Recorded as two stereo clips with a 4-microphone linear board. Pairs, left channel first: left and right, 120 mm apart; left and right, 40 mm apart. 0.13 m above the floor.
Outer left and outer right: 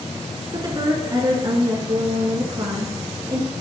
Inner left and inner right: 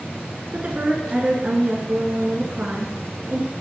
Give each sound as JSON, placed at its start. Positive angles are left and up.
{"t": 0.5, "sound": "a woman speaking", "side_deg": -35, "distance_m": 1.3}